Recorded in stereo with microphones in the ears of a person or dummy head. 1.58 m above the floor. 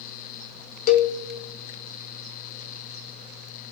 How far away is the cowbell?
About 0.6 m.